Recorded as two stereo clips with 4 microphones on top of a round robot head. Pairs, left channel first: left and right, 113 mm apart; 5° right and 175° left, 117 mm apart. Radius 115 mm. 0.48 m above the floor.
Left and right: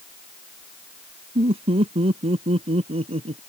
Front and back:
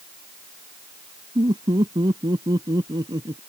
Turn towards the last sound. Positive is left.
turn(degrees=-125)